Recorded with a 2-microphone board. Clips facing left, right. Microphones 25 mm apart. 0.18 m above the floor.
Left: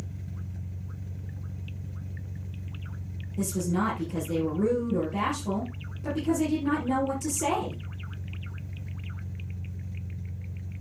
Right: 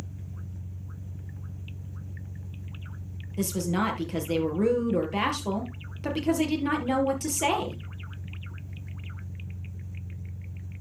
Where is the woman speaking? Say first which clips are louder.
Right 1 dB; 75° right (ahead or behind), 3.5 m.